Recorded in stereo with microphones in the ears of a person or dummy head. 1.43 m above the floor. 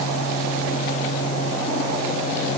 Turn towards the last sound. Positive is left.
No sound to turn to.